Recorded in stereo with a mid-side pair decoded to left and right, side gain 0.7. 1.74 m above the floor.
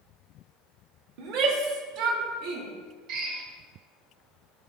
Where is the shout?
70° right, 1.8 m; by 2.7 s 65° right, 4 m.